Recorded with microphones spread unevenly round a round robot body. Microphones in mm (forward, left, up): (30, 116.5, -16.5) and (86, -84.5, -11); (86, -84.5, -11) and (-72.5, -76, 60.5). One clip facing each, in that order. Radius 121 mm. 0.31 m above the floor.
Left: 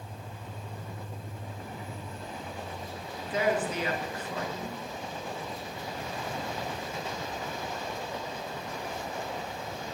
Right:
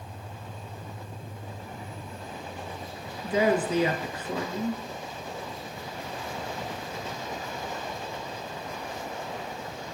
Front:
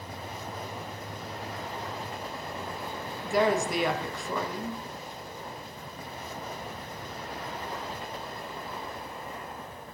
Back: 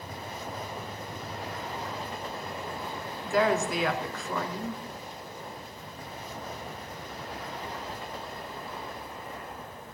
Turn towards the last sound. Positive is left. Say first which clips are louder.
# right 4 dB, even
turn(degrees=-85)